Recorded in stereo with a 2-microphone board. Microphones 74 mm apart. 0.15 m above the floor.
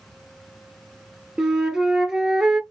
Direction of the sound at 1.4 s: 10° right (ahead or behind).